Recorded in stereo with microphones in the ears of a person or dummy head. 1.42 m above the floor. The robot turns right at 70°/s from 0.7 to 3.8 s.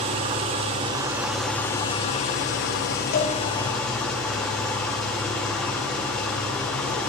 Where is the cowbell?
45° left (ahead or behind), 1.1 m; by 3.4 s 35° left (ahead or behind), 1.1 m.